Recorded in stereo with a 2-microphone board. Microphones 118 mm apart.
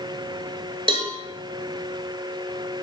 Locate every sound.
0.9 s a cowbell: 45° right (ahead or behind), 0.5 m